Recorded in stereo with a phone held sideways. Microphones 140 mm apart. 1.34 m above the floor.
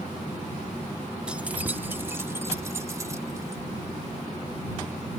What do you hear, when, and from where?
1.3 s keys jangling: 5° right (ahead or behind); by 3.6 s 25° right (ahead or behind)